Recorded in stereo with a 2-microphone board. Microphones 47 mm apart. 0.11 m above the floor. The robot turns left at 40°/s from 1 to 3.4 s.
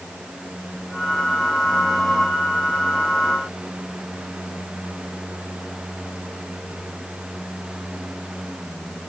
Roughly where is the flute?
No flute in this recording.